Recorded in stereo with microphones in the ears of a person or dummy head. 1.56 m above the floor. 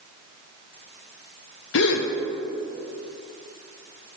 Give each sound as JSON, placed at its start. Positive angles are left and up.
{"t": 1.7, "sound": "a gasp", "side_deg": 60, "distance_m": 0.8}